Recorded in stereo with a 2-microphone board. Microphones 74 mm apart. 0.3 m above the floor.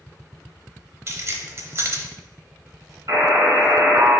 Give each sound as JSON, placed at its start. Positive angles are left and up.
{"t": 1.1, "sound": "keys jangling", "side_deg": -40, "distance_m": 1.0}
{"t": 3.1, "sound": "a buzzer", "side_deg": -55, "distance_m": 2.5}